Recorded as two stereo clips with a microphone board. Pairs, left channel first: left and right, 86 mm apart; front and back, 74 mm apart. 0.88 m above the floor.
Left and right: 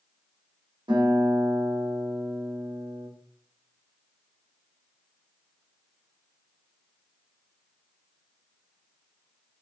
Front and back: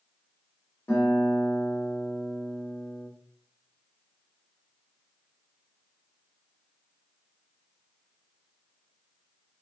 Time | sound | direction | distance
0.9 | a guitar | 65° right | 1.7 m